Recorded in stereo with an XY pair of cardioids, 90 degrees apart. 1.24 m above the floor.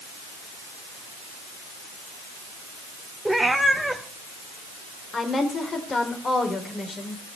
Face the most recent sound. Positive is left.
turn(degrees=40)